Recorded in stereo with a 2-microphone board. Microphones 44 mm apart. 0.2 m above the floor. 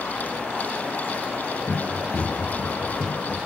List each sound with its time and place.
1.7 s running footsteps: 20° left (ahead or behind), 1.5 m; by 3.5 s 15° left (ahead or behind), 3 m